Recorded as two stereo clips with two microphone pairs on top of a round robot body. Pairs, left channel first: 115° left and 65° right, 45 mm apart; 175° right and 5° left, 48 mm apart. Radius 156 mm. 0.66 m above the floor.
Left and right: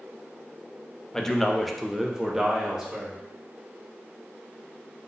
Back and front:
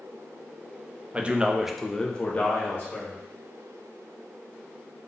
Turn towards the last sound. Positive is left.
turn(degrees=-130)